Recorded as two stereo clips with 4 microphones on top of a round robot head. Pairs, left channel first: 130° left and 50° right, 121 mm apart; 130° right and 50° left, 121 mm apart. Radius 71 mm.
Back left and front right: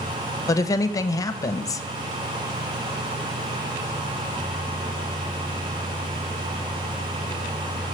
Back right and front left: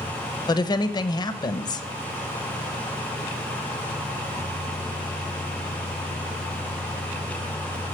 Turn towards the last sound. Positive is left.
turn(degrees=-175)